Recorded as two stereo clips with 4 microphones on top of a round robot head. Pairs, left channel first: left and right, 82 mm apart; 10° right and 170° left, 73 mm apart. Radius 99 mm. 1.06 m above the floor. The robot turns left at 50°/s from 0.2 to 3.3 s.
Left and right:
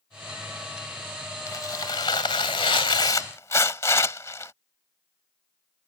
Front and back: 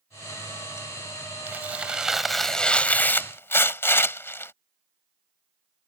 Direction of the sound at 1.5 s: 120° left.